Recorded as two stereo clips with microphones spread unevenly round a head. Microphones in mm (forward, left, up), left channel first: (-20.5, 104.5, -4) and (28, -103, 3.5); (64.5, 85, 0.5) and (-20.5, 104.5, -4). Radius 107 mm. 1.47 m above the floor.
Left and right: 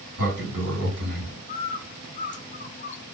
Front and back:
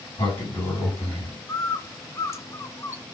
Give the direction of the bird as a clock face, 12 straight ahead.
10 o'clock.